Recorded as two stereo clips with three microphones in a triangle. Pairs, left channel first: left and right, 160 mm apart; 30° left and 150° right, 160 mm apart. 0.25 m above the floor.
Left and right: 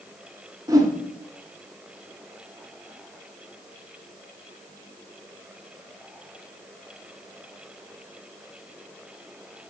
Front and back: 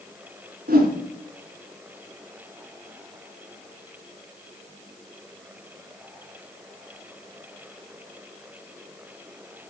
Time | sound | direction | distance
0.7 | a whoosh | 160° right | 1.1 m